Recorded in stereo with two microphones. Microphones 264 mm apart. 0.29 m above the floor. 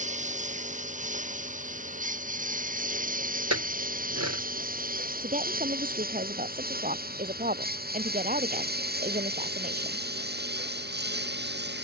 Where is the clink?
75° right (ahead or behind).